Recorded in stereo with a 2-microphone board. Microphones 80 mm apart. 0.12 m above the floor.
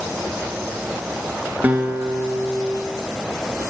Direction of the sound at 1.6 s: 20° right (ahead or behind).